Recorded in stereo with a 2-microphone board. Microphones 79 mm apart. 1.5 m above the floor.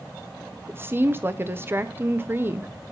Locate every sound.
0.7 s a woman speaking: 30° right (ahead or behind), 1.0 m